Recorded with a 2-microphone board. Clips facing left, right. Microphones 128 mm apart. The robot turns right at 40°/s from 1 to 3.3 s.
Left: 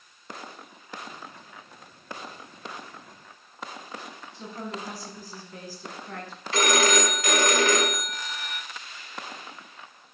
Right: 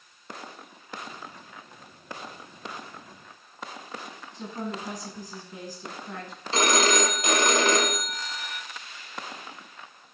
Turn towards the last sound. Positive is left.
turn(degrees=-30)  # may be behind; listen again after turning